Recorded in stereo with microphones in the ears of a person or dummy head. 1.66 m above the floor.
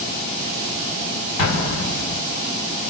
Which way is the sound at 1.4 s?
60° left (ahead or behind).